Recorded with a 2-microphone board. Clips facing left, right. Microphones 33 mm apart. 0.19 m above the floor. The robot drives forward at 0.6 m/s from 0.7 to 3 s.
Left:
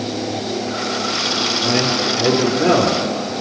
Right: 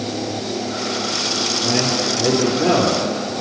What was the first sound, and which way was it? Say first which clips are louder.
A man speaking: left 1 dB; 15° left (ahead or behind).